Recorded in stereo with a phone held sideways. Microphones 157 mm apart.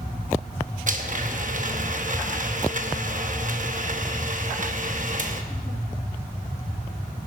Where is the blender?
55° right (ahead or behind), 0.8 m.